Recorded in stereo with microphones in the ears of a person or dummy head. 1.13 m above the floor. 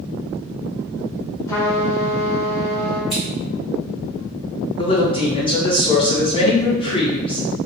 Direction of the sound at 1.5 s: 15° left (ahead or behind).